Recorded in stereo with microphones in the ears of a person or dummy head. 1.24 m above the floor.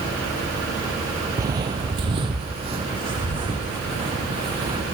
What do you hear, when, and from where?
1.4 s footsteps: 15° right (ahead or behind), 1.3 m; by 4.8 s 25° right (ahead or behind), 5 m